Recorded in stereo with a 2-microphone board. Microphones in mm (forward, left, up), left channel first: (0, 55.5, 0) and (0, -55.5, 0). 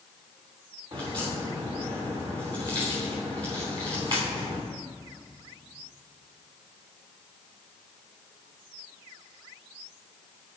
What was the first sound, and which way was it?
A crack, 45° right (ahead or behind).